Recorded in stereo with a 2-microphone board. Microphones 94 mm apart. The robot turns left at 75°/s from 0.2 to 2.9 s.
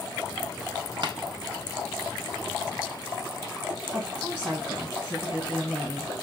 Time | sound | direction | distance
1.0 | tapping | 55° right (ahead or behind) | 0.5 m
3.9 | a woman speaking | 15° right (ahead or behind) | 2.0 m